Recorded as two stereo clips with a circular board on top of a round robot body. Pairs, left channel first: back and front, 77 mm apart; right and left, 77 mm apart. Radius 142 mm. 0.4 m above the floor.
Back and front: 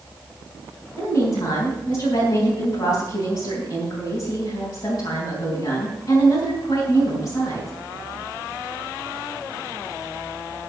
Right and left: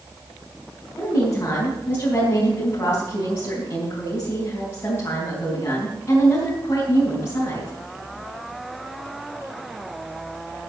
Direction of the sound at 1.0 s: 150° right.